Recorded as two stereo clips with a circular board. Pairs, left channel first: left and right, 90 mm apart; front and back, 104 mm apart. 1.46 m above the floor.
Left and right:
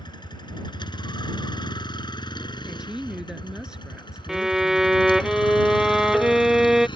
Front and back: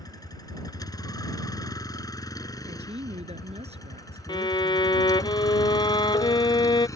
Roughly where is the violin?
Ahead.